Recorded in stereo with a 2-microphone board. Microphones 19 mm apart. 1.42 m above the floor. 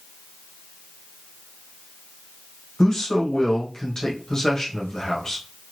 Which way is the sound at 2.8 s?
30° left (ahead or behind).